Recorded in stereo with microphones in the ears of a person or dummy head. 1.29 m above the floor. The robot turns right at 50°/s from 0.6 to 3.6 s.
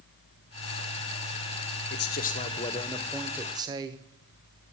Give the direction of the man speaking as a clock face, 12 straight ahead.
8 o'clock.